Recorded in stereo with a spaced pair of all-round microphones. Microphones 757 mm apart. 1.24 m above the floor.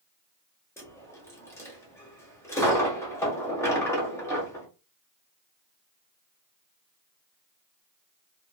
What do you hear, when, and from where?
0.8 s a dropped coin: 5° left (ahead or behind), 0.8 m